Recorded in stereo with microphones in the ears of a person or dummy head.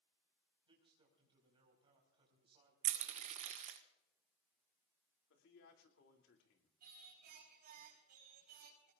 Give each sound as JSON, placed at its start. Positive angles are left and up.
{"t": 0.7, "sound": "a man speaking", "side_deg": -25, "distance_m": 5.0}
{"t": 2.8, "sound": "crushing", "side_deg": -35, "distance_m": 1.2}
{"t": 5.3, "sound": "a man speaking", "side_deg": 80, "distance_m": 2.5}
{"t": 6.8, "sound": "singing", "side_deg": -50, "distance_m": 4.5}